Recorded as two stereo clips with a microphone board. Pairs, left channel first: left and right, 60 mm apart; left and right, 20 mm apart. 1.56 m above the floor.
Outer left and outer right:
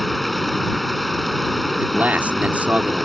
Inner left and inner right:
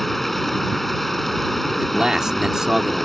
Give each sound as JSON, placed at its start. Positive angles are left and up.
{"t": 0.0, "sound": "running water", "side_deg": 0}
{"t": 1.7, "sound": "a man speaking", "side_deg": -25}